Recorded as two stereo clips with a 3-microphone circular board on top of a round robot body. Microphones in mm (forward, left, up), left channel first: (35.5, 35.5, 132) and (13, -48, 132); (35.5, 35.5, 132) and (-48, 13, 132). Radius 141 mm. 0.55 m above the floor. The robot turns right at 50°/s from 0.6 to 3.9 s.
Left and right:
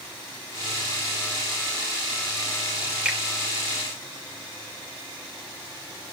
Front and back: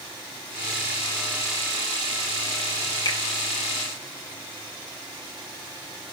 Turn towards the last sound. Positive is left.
turn(degrees=15)